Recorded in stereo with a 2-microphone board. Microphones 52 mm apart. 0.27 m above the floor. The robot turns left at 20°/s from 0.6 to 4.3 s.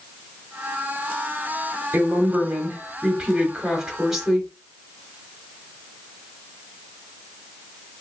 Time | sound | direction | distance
1.9 | a woman speaking | 125° right | 1.4 m